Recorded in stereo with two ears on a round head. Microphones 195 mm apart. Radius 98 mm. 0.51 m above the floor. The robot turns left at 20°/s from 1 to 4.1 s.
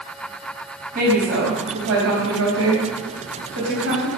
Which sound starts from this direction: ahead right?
A woman speaking, at 0.9 s.